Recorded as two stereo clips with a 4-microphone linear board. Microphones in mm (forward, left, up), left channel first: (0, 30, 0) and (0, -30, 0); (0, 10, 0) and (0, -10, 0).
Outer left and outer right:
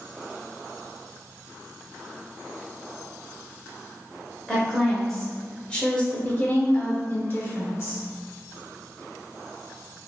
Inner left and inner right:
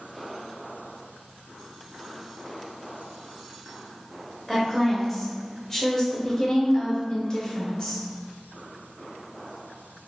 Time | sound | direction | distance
4.5 | a woman speaking | centre (ahead or behind) | 1.7 m